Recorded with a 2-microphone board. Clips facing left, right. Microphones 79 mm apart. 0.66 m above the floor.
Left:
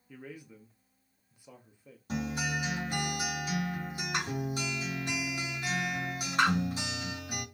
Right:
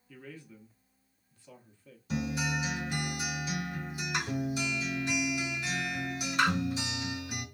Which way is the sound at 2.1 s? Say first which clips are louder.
Right 1 dB; 45° left (ahead or behind).